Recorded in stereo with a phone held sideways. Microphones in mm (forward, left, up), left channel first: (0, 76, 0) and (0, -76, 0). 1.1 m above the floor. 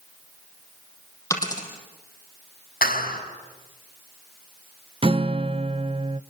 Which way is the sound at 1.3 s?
20° left (ahead or behind).